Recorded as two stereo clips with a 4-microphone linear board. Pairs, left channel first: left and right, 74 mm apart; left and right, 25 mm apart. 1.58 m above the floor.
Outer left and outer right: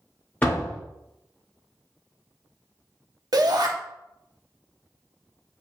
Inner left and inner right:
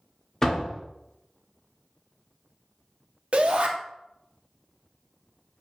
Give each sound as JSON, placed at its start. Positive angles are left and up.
{"t": 0.4, "sound": "a door slam", "side_deg": 25, "distance_m": 1.9}
{"t": 3.3, "sound": "a shout", "side_deg": -60, "distance_m": 1.0}